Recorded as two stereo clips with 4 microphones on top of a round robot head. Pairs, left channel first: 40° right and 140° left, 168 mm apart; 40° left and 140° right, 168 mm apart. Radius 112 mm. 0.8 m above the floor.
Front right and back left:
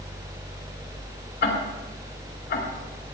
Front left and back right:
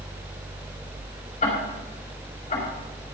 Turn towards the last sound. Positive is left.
turn(degrees=-15)